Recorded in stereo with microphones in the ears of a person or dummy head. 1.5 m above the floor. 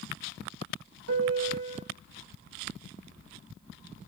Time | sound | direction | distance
1.1 | a piano | 85° right | 2.5 m